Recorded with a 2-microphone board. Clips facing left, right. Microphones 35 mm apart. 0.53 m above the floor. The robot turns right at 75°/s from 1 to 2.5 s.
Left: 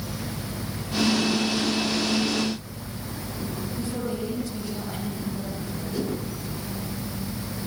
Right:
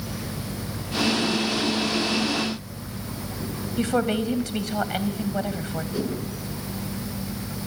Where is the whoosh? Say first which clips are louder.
Even; 5° right (ahead or behind), 8 m.